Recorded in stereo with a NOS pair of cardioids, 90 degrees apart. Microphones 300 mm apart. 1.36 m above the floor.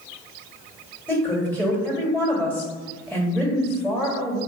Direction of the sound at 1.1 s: 5° left.